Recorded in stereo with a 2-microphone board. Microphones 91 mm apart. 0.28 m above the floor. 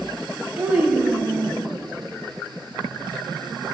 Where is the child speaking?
15° right (ahead or behind), 0.6 m.